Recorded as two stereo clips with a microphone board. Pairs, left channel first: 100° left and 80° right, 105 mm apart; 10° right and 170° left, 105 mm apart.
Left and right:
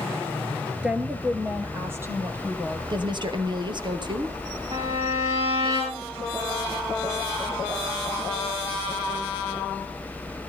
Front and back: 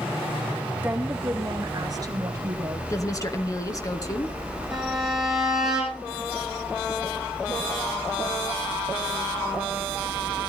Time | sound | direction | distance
0.8 | a woman speaking | 145° right | 1.2 m
2.9 | a woman speaking | 60° right | 2 m
4.7 | a violin | 105° right | 6 m